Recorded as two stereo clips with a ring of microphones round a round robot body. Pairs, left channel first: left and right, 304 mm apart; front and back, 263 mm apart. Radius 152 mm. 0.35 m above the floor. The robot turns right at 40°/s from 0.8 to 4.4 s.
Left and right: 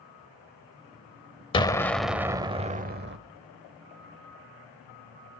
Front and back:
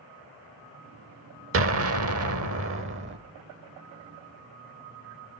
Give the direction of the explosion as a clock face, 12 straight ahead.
7 o'clock.